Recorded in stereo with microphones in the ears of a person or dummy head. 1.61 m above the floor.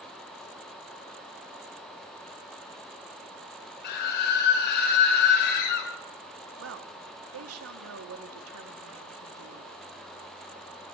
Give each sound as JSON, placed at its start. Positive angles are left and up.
{"t": 3.8, "sound": "a scream", "side_deg": 50, "distance_m": 6.0}
{"t": 6.6, "sound": "a woman speaking", "side_deg": -85, "distance_m": 3.0}